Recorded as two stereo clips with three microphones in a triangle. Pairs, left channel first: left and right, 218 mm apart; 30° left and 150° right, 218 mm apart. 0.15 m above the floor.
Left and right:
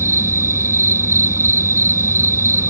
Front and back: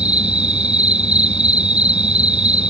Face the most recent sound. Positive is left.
turn(degrees=-155)